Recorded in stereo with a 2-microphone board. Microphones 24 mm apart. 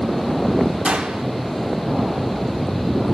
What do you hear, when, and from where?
0.8 s a gunshot: 80° right, 2 m